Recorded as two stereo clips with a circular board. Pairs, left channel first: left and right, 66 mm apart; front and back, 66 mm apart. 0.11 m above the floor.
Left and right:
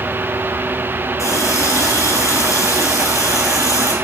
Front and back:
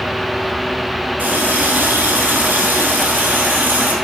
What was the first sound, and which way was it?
A running tap, 120° left.